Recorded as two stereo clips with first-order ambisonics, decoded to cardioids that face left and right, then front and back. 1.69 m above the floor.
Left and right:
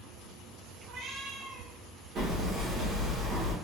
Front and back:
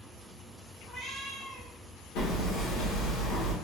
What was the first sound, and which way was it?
A cat meowing, 80° right.